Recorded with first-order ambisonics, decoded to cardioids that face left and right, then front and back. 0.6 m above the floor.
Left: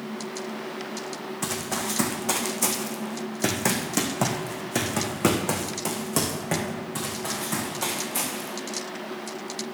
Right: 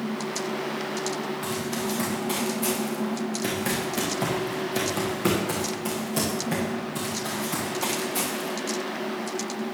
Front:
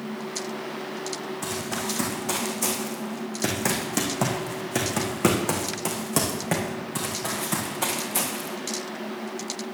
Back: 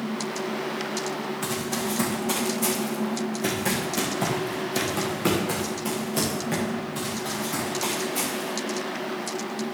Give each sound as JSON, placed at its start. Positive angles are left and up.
{"t": 1.4, "sound": "running footsteps", "azimuth_deg": 85, "distance_m": 3.0}